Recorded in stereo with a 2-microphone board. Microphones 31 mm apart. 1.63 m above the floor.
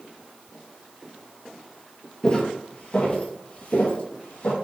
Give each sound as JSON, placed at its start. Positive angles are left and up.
{"t": 2.2, "sound": "footsteps", "side_deg": 25, "distance_m": 2.0}